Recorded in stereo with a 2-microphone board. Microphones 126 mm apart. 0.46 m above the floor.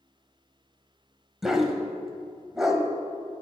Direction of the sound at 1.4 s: 5° right (ahead or behind).